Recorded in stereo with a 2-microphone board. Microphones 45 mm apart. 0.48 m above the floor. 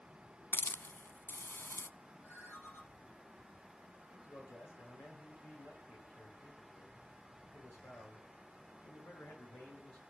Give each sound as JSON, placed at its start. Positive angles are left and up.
{"t": 0.5, "sound": "a hiss", "side_deg": 55, "distance_m": 0.5}
{"t": 2.2, "sound": "a ringtone", "side_deg": 75, "distance_m": 7.5}
{"t": 4.1, "sound": "a man speaking", "side_deg": 60, "distance_m": 8.0}